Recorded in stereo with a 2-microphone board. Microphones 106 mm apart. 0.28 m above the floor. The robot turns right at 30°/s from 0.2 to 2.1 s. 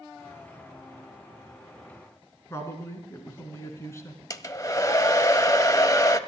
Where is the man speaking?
25° left (ahead or behind), 3 m.